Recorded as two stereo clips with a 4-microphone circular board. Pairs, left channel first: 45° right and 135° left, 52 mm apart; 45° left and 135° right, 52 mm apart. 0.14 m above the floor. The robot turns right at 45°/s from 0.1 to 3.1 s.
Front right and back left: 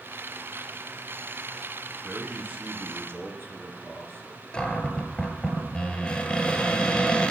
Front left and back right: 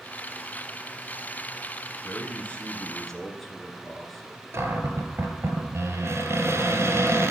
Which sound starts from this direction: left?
A man speaking, at 2.0 s.